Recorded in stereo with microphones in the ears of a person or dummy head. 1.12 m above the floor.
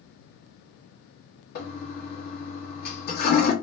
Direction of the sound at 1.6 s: 55° left (ahead or behind).